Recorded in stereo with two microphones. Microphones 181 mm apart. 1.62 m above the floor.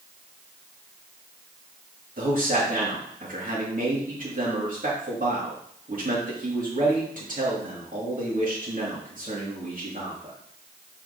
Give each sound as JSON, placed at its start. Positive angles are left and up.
{"t": 2.2, "sound": "a man speaking", "side_deg": -50, "distance_m": 2.5}